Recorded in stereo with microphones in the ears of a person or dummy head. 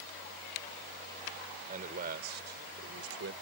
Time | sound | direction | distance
1.7 | a man speaking | 45° right (ahead or behind) | ?